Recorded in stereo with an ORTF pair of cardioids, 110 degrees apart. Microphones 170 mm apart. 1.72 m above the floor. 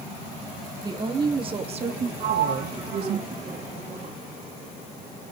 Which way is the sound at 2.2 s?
40° right.